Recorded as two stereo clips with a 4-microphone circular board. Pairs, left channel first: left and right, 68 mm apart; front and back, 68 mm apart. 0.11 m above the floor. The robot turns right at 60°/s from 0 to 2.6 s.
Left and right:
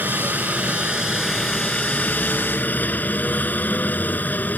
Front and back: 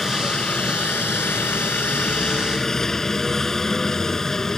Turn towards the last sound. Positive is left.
turn(degrees=75)